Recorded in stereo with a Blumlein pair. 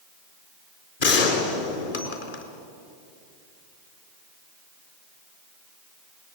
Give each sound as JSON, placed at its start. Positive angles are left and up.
{"t": 1.0, "sound": "a gunshot", "azimuth_deg": 60, "distance_m": 4.0}